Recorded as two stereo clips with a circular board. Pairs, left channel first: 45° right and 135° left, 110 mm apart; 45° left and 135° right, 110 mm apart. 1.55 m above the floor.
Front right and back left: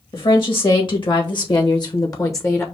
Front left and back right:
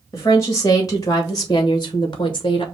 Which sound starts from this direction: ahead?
A woman speaking, at 0.1 s.